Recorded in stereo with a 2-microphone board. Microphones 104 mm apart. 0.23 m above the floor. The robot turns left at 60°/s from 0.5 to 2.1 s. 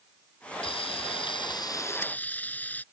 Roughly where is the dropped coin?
No dropped coin in this recording.